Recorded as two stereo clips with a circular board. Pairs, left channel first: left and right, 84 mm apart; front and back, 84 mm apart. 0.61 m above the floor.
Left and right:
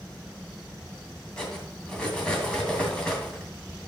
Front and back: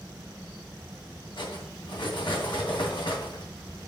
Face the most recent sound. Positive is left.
turn(degrees=10)